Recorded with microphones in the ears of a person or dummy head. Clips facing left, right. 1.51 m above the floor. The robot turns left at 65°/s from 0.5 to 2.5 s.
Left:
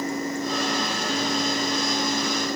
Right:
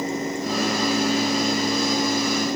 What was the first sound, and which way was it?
Only background noise.